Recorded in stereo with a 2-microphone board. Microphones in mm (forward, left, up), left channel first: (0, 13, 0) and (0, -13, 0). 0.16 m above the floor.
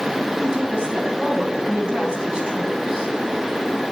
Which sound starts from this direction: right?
A woman speaking, at 0.4 s.